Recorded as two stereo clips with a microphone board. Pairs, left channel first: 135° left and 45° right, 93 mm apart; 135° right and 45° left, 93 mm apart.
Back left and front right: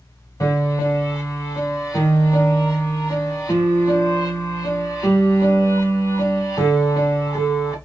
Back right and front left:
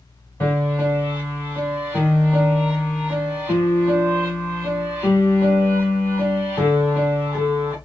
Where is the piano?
175° left, 1.6 m.